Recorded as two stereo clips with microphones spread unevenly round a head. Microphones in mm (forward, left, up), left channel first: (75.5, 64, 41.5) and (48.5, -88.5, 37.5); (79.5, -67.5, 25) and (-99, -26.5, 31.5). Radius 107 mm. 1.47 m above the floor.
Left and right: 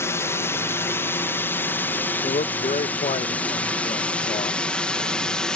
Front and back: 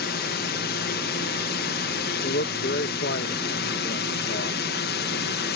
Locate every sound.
0.0 s a drone: 10° left; by 5.6 s 5° right
2.2 s a man speaking: 30° left